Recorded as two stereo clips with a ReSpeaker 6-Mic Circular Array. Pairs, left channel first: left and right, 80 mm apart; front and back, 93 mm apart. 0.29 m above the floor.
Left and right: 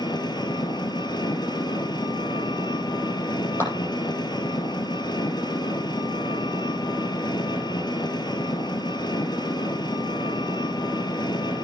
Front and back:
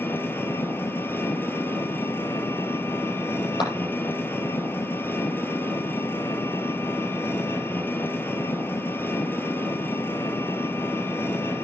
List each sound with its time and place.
0.0 s an engine running: 65° left, 1.4 m
3.6 s a clap: 35° left, 9 m